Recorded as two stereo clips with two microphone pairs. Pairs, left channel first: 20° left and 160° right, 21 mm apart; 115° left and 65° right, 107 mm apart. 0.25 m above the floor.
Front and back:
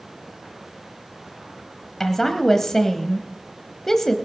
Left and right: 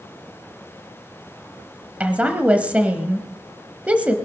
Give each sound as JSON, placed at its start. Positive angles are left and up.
{"t": 2.0, "sound": "a woman speaking", "azimuth_deg": -10, "distance_m": 1.1}